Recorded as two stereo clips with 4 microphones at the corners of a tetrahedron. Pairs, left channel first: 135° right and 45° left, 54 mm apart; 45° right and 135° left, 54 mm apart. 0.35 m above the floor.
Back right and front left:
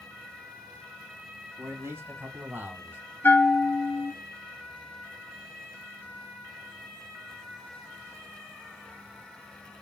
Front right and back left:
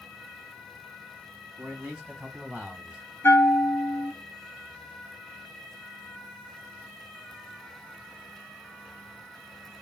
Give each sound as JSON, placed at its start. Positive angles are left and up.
{"t": 1.6, "sound": "a man speaking", "azimuth_deg": 65, "distance_m": 3.0}
{"t": 3.2, "sound": "a bell", "azimuth_deg": -90, "distance_m": 0.8}